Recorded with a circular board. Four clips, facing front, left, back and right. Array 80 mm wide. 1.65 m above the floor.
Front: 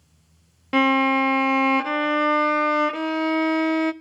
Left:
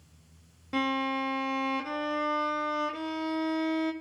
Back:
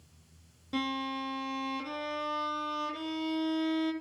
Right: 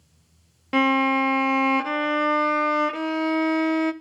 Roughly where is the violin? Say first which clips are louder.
Right 9 dB, front 15 dB; ahead right.